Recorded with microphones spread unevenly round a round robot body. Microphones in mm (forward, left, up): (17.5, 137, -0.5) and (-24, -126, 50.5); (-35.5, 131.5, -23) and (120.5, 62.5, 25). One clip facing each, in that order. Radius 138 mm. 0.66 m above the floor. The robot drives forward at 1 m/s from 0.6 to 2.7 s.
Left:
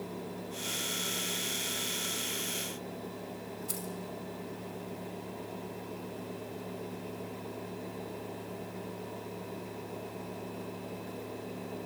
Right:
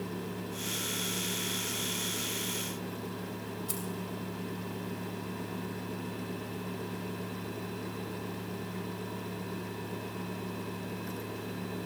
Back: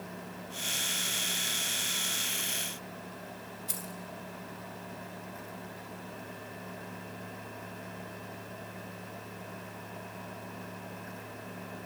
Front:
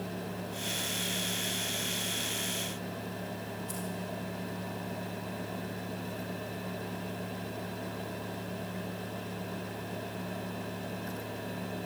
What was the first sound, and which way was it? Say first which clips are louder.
Keys jangling: right 2 dB, front 6 dB; 175° left.